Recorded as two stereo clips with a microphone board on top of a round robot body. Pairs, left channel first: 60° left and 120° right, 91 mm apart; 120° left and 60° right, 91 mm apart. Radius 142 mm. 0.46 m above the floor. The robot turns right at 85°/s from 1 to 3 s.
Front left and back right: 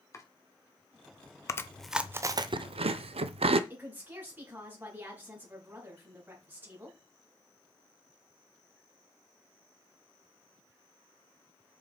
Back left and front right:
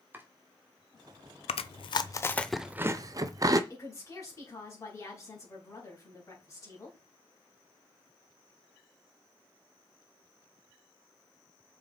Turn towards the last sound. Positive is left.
turn(degrees=170)